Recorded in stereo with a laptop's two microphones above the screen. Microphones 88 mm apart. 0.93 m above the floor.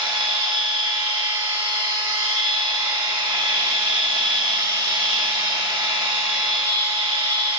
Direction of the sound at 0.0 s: 60° right (ahead or behind).